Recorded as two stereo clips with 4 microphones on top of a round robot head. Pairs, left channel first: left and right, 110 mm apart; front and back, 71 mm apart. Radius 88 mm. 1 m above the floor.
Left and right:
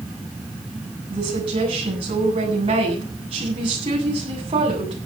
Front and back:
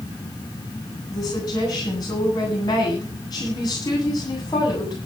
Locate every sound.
1.1 s a woman speaking: 45° right, 8.5 m